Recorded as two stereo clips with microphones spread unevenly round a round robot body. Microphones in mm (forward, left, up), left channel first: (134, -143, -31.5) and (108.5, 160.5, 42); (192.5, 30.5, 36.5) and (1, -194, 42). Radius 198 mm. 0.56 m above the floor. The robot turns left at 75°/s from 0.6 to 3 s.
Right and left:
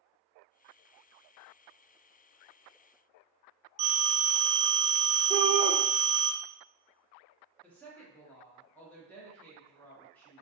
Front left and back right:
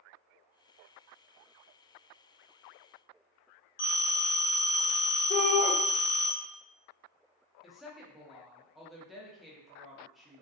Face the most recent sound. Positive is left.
turn(degrees=-40)